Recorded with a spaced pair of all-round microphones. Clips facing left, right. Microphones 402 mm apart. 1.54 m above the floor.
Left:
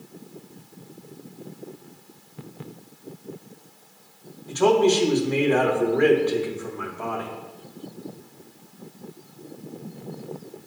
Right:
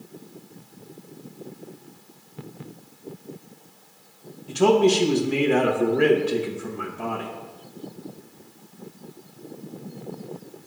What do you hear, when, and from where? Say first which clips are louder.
4.5 s a man speaking: right 1 dB; 40° right (ahead or behind), 2.0 m